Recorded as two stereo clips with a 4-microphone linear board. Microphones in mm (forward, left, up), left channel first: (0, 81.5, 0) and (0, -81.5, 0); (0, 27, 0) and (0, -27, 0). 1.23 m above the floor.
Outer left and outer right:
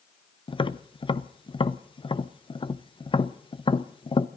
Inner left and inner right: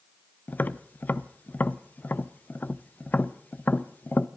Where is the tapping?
30° left (ahead or behind), 0.5 m.